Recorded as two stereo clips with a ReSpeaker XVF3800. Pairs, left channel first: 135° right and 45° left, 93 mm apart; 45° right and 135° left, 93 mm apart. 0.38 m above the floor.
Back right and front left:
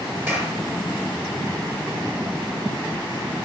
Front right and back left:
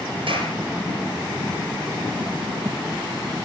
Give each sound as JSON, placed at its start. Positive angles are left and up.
{"t": 0.3, "sound": "a clap", "azimuth_deg": 110, "distance_m": 5.5}